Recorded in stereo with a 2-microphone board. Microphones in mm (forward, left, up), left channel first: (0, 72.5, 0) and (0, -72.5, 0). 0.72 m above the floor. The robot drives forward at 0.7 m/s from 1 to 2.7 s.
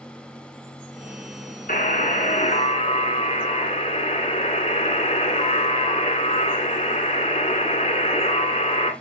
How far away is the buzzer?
About 2 m.